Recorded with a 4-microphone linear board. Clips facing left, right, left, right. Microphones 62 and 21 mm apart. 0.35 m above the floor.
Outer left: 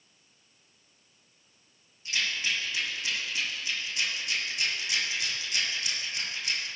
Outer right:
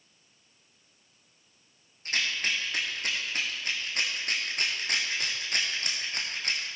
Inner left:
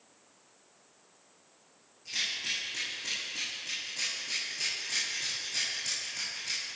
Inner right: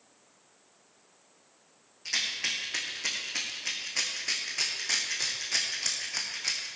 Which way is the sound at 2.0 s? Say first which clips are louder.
Outer right 1 dB, inner right 2 dB; 50° right (ahead or behind).